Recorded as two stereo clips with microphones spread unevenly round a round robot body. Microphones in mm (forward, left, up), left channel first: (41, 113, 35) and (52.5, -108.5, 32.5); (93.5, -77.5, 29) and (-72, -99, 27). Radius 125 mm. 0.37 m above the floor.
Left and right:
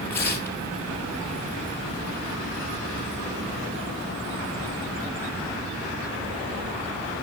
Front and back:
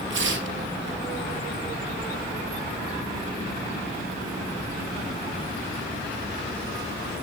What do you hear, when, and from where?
0.1 s tearing paper: 175° left, 2.5 m